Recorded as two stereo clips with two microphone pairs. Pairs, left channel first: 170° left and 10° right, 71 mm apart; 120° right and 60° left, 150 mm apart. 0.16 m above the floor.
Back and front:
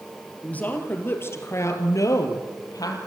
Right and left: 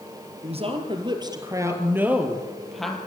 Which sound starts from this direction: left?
A woman speaking, at 0.4 s.